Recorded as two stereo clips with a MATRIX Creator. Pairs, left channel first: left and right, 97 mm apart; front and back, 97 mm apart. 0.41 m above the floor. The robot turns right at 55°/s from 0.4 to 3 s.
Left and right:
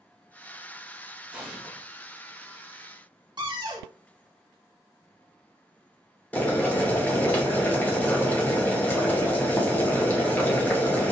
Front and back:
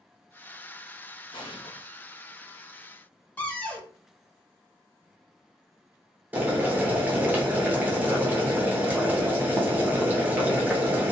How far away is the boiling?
About 0.8 m.